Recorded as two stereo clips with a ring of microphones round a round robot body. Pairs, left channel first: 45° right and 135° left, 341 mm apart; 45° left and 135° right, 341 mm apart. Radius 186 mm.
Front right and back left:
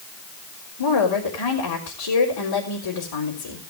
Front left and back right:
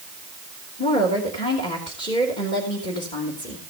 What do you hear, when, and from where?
0.8 s a woman speaking: 25° right, 3.5 m